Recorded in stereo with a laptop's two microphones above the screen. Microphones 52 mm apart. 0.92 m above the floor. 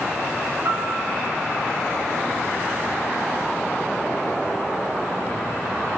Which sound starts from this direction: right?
A piano, at 0.7 s.